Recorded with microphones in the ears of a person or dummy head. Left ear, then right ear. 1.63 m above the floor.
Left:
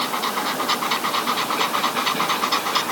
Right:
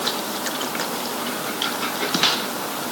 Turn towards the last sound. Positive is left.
No sound to turn to.